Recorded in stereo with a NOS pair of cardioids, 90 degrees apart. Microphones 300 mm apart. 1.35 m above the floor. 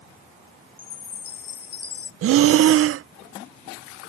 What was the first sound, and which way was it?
A chime, 35° left.